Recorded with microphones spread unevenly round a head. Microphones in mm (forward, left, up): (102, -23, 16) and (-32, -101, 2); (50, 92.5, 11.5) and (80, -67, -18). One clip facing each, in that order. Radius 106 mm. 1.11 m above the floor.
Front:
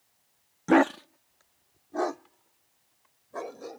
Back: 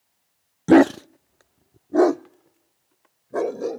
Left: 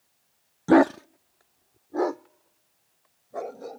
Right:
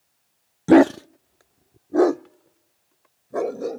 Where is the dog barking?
150° right; by 3.8 s 130° right.